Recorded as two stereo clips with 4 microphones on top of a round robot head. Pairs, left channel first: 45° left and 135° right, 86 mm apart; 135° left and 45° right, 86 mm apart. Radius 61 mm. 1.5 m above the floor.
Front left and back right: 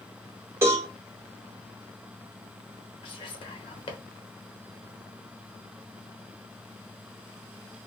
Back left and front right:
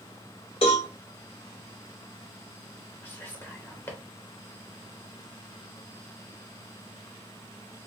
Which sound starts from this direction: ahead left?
Whispering, at 3.0 s.